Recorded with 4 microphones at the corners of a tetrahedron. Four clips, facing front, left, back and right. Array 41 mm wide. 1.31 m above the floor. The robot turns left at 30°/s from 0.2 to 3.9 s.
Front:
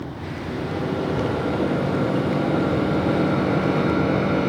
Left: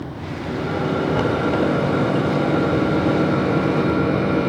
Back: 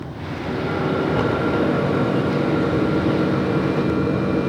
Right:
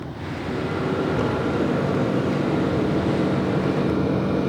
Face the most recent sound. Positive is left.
turn(degrees=35)